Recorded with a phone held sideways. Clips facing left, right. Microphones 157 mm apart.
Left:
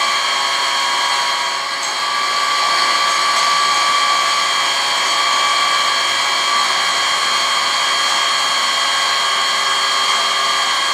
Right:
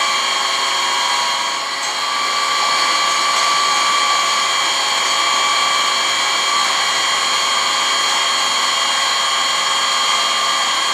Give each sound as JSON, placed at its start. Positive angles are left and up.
{"t": 0.0, "sound": "an engine running", "side_deg": -25, "distance_m": 1.0}